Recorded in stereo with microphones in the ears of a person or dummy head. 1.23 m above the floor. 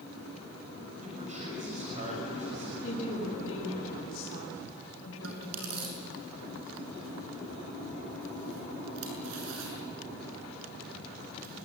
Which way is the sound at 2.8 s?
70° left (ahead or behind).